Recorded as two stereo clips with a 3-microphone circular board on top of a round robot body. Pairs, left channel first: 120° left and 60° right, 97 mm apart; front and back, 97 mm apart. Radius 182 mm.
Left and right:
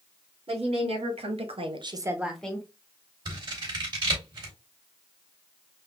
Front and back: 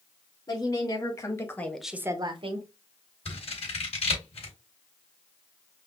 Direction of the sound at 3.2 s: 15° right.